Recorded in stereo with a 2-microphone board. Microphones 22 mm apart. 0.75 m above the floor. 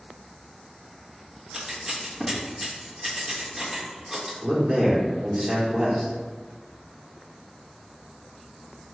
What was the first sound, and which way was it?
Scissors, 20° right (ahead or behind).